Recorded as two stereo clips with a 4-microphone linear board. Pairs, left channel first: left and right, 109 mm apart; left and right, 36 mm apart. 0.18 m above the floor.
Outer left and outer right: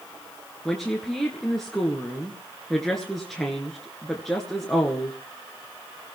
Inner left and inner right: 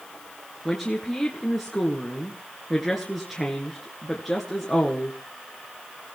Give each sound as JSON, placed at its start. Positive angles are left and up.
{"t": 0.7, "sound": "a woman speaking", "side_deg": 5, "distance_m": 2.0}